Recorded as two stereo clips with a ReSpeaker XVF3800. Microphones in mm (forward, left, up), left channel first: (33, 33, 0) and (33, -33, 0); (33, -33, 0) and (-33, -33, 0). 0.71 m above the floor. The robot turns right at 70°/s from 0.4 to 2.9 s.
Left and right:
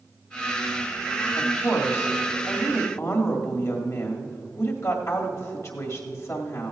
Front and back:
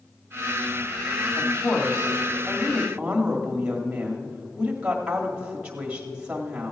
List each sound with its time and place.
1.4 s a woman speaking: 5° left, 1.7 m; by 6.7 s 110° left, 1.7 m